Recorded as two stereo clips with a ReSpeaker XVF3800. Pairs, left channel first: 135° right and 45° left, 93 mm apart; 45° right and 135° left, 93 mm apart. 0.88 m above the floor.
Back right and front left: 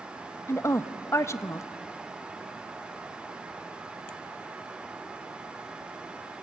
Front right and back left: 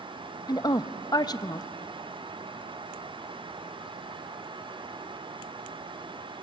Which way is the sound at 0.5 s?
80° right.